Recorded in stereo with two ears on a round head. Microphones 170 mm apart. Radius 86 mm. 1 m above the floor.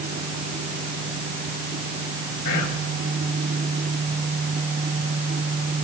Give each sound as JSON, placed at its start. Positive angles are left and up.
{"t": 2.5, "sound": "whispering", "side_deg": 45, "distance_m": 2.5}